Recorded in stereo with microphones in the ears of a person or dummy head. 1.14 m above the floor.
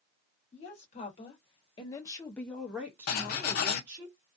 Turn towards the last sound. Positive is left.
turn(degrees=60)  # may be behind; listen again after turning